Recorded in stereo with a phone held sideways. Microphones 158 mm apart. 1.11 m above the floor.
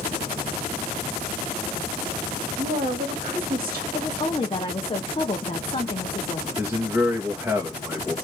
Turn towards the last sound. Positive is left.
turn(degrees=-15)  # may be behind; listen again after turning